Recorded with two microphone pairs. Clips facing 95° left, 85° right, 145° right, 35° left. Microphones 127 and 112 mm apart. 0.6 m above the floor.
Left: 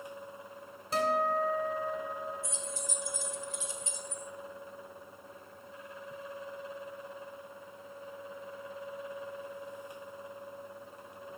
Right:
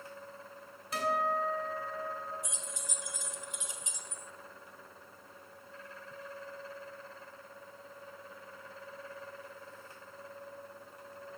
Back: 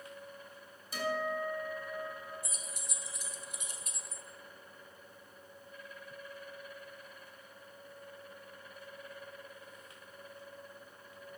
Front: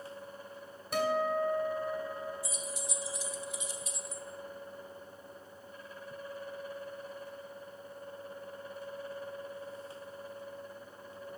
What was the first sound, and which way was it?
A guitar, 40° left.